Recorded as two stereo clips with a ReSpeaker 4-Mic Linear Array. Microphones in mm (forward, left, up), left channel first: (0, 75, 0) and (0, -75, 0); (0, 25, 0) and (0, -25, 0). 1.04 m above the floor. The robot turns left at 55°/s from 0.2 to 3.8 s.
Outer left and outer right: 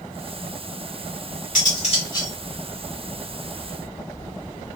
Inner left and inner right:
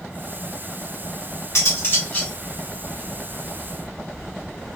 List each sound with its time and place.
1.6 s cutlery clinking: 65° left, 1.8 m; by 2.3 s 20° left, 1.8 m